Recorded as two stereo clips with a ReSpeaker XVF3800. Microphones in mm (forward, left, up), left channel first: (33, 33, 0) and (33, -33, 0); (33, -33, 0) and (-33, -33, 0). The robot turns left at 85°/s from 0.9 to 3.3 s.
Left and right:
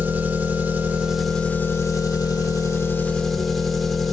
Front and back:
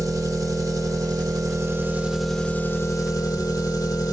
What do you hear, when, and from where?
0.0 s an engine running: 155° right, 1.8 m; by 4.1 s straight ahead, 1.8 m